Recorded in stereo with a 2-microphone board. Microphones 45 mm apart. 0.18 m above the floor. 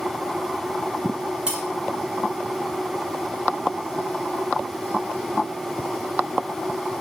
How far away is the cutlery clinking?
About 1.4 m.